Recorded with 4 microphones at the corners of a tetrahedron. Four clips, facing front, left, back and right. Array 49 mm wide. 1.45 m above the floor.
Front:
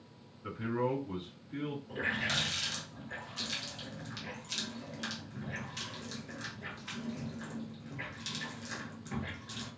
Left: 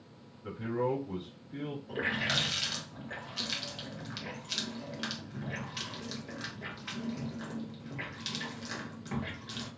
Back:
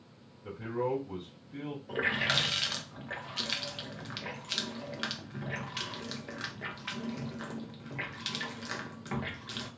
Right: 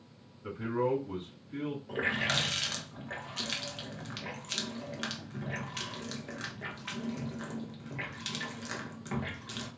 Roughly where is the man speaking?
Ahead right.